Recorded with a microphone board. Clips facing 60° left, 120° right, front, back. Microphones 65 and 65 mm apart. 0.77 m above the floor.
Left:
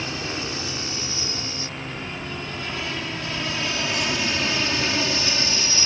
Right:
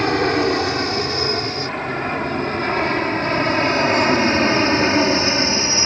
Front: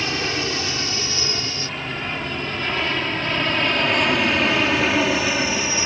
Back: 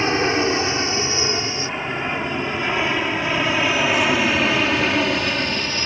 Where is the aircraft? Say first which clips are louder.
Right 13 dB, back 6 dB; 125° right; by 5.9 s 75° right.